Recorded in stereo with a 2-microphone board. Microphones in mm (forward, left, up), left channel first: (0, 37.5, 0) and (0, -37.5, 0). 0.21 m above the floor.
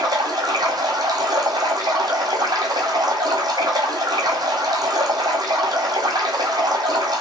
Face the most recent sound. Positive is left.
turn(degrees=-65)  # may be behind; listen again after turning